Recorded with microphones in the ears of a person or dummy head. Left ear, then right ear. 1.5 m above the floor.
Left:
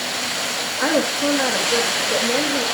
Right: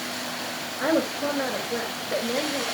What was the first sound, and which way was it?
A woman speaking, 35° left (ahead or behind).